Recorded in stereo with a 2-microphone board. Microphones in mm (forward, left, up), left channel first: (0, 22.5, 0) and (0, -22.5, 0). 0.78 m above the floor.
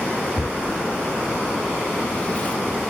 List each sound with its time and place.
0.4 s tearing paper: 30° left (ahead or behind), 0.7 m